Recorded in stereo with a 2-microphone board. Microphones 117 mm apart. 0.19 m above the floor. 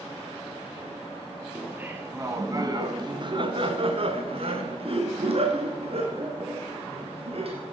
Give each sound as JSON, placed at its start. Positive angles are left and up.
{"t": 1.6, "sound": "laughter", "side_deg": -10, "distance_m": 1.6}